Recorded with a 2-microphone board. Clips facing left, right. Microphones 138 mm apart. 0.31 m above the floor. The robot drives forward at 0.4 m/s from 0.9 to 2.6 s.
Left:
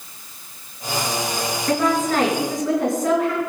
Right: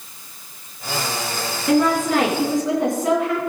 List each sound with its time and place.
1.7 s a woman speaking: 15° right (ahead or behind), 4 m; by 3.5 s 20° right (ahead or behind), 4 m